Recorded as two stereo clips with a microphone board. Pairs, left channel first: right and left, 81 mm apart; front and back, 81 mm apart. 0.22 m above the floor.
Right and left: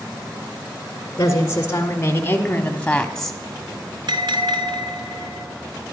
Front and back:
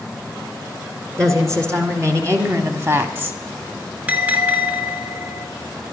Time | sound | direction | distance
1.2 | a woman speaking | 135° right | 2 m
4.1 | a bell | 110° left | 1.6 m